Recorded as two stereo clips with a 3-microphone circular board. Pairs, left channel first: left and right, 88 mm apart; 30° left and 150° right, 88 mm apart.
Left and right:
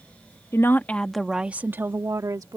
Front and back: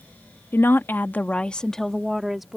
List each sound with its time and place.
0.5 s a woman speaking: 65° left; by 2.6 s 65° right